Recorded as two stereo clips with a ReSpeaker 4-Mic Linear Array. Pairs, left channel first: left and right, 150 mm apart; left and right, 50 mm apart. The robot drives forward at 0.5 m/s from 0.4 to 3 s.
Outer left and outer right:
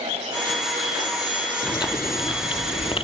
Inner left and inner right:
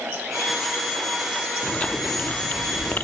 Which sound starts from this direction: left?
Chewing, at 1.6 s.